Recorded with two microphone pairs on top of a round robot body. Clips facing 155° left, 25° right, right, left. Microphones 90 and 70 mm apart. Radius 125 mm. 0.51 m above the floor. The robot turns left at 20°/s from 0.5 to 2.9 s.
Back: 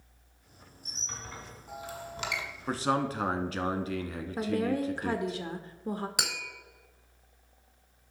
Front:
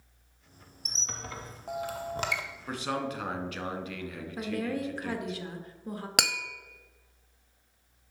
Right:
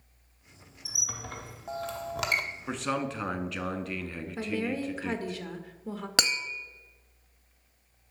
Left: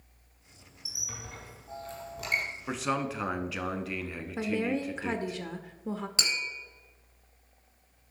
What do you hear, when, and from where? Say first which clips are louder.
0.8 s a squeak: front 3 dB, right 4 dB; 45° right, 0.6 m; by 2.4 s 80° right, 0.6 m
2.7 s a man speaking: back 4 dB, left 1 dB; straight behind, 1.4 m; by 5.4 s 175° left, 1.4 m
4.4 s a woman speaking: back 3 dB, left 2 dB; 145° left, 1.1 m
6.2 s tapping: front 4 dB, right 8 dB; 60° right, 0.8 m